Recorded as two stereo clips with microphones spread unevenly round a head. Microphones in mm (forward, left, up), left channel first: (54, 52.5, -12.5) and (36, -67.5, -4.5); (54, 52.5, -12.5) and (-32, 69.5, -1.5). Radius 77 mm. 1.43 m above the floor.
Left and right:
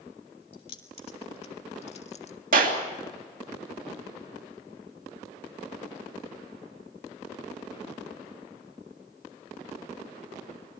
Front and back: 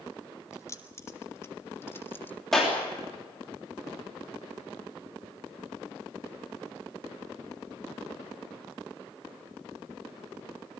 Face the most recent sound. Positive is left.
turn(degrees=-100)